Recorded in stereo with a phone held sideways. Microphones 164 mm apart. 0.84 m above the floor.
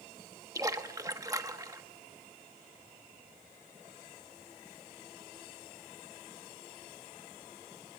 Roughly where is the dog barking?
No dog barking in this recording.